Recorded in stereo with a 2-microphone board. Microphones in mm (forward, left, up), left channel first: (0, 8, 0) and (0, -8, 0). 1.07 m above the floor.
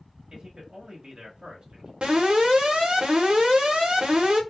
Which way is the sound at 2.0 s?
85° right.